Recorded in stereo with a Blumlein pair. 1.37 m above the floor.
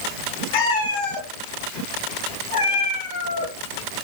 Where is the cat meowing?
60° left, 5 m; by 3.5 s 80° left, 8 m.